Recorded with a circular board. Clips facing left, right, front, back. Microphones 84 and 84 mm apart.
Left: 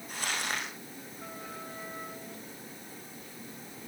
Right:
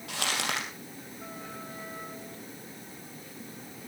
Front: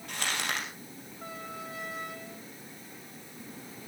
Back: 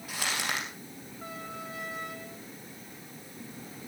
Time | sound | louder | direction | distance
0.1 | crumpling | right 3 dB, even | 95° right | 4.5 m